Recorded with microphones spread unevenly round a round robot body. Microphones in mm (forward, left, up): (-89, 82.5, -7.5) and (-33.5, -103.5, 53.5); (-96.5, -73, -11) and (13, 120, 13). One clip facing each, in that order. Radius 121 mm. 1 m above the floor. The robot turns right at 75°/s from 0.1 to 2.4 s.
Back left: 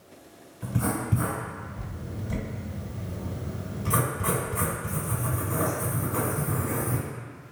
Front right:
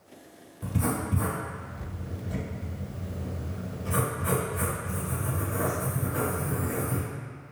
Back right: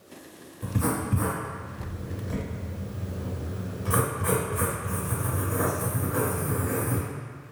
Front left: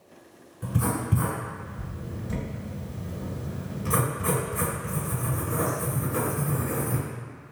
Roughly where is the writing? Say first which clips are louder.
Back left 1 dB, back right 1 dB; ahead.